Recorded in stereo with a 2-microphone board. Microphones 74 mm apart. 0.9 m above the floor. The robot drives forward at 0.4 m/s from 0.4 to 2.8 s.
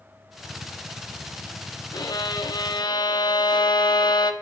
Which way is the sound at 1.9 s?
60° left (ahead or behind).